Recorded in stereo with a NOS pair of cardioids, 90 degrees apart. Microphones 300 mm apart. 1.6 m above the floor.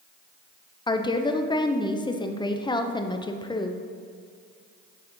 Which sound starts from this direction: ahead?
A woman speaking, at 0.9 s.